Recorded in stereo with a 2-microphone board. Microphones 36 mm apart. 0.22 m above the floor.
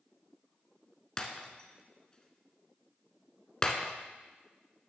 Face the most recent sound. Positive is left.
turn(degrees=20)  # may be behind; listen again after turning